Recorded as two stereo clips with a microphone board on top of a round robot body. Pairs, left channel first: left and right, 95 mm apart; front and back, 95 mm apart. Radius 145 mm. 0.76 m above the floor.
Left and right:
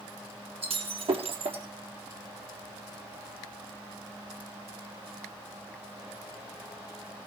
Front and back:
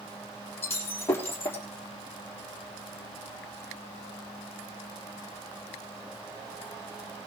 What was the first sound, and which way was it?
Breaking glass, 65° right.